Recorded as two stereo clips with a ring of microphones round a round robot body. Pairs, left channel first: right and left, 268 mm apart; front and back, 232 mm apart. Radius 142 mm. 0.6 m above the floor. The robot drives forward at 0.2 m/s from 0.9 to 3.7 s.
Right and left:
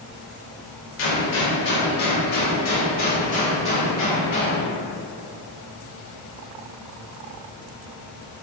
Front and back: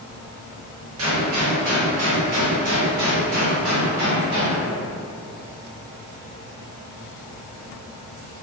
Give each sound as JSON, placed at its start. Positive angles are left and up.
{"t": 1.0, "sound": "a gunshot", "azimuth_deg": -135, "distance_m": 0.6}